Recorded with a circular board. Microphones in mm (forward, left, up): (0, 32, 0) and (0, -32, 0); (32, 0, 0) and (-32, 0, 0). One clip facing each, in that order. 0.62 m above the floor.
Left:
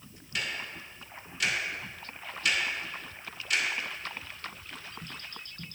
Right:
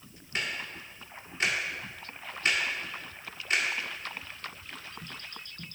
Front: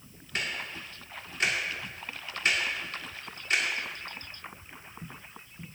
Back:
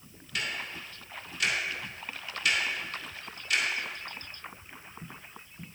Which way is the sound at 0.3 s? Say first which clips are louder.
Right 1 dB, front 1 dB; 45° right.